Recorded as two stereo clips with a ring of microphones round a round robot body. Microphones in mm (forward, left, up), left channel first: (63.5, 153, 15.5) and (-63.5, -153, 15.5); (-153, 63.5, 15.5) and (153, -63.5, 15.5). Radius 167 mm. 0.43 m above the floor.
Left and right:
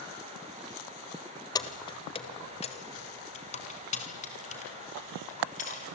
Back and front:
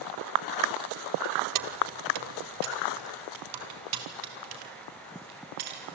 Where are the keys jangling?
10° right, 1.4 m; by 5.8 s straight ahead, 6 m.